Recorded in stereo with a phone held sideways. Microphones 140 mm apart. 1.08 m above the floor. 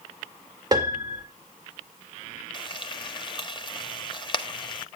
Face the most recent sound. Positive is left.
turn(degrees=35)  # may be behind; listen again after turning